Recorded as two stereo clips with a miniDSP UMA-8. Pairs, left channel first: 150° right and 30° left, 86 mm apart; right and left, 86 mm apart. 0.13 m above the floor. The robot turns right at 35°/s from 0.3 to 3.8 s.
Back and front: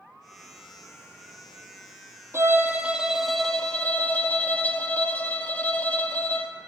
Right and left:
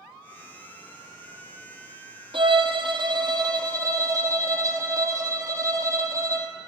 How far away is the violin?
About 1.5 m.